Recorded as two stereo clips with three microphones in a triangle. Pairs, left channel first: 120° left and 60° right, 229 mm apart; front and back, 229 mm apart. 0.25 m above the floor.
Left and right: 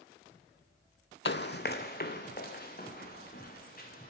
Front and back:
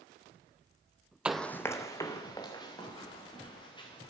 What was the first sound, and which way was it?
Running footsteps, 95° left.